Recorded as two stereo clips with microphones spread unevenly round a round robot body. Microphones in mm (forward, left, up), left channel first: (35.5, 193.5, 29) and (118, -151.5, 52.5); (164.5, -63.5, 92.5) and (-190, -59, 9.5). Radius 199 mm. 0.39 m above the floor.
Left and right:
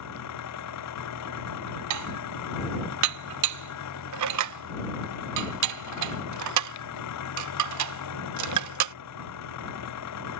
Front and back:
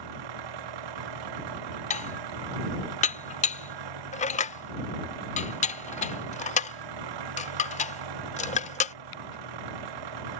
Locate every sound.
0.0 s an engine running: 155° left
1.9 s dishes clattering: 80° right